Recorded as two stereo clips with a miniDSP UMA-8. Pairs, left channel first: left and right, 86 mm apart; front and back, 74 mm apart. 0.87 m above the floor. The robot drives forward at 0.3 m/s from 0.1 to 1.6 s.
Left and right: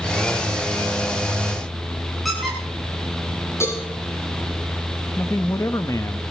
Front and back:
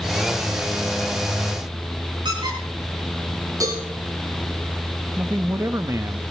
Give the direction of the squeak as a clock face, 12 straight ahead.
6 o'clock.